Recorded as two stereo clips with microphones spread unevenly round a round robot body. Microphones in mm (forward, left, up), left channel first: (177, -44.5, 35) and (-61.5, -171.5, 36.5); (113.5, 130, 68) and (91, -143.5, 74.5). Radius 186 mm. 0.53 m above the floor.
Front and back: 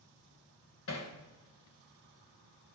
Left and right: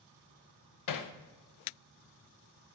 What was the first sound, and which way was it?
Hammering, 85° left.